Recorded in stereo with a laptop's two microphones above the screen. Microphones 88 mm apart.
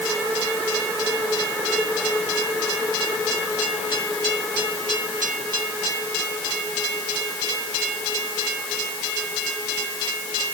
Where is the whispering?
I don't hear whispering.